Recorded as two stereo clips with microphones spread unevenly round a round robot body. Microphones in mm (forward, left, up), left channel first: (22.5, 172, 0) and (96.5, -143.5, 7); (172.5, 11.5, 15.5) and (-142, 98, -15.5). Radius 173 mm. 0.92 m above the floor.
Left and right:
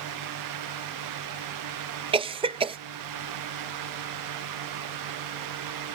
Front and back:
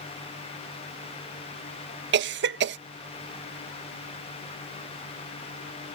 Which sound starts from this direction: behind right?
A cough, at 2.1 s.